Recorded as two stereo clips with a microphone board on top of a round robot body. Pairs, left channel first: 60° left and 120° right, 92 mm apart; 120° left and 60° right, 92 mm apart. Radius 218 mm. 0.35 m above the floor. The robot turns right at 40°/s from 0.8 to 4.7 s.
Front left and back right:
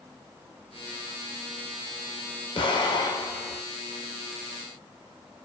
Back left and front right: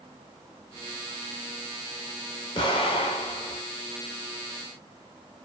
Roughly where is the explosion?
Left.